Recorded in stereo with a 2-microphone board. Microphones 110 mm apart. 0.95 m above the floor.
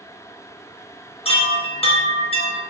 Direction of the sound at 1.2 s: 60° left (ahead or behind).